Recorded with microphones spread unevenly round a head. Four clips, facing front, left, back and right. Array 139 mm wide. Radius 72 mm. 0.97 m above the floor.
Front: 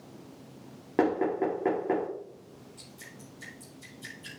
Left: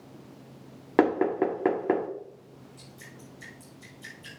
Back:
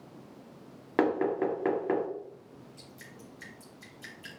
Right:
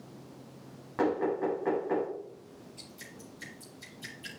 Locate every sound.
1.0 s knocking: 90° left, 1.9 m
2.8 s dripping: 160° right, 2.5 m